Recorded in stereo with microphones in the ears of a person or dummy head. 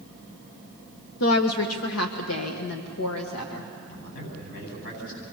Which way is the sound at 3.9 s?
70° left (ahead or behind).